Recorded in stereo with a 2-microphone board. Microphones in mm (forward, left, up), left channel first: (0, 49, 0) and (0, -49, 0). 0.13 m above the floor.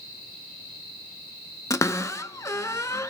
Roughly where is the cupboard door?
Left.